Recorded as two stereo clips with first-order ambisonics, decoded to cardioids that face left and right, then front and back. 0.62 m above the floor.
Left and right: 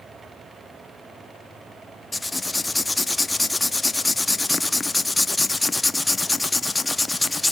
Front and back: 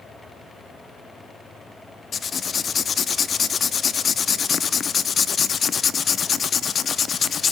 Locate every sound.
2.1 s writing: 20° left, 0.6 m